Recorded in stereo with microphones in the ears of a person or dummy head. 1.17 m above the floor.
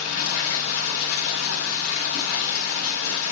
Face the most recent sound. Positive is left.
turn(degrees=85)